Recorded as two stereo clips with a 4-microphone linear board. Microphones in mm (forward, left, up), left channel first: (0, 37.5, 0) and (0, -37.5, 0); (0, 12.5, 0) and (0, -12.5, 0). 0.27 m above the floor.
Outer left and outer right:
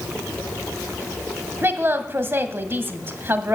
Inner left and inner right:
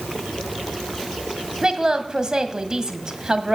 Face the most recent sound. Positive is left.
turn(degrees=-35)  # may be behind; listen again after turning